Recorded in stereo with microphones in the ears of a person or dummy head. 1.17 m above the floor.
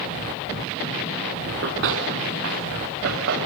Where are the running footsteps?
70° right (ahead or behind), 6.5 m; by 3.4 s 80° right, 8.5 m.